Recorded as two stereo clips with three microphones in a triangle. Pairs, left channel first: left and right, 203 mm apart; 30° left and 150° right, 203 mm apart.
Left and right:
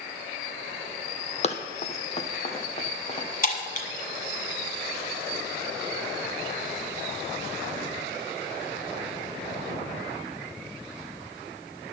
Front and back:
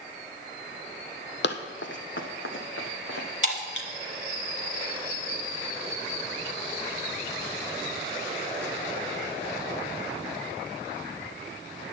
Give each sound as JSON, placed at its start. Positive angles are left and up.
{"t": 1.4, "sound": "running footsteps", "azimuth_deg": 40, "distance_m": 0.8}
{"t": 3.4, "sound": "breaking glass", "azimuth_deg": 45, "distance_m": 1.3}